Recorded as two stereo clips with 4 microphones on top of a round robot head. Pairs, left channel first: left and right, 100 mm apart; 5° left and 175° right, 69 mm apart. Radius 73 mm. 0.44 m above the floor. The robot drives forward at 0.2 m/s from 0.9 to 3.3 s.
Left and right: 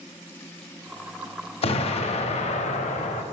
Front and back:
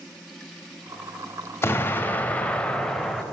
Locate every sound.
1.6 s an explosion: 65° left, 0.6 m; by 3.2 s 95° left, 0.6 m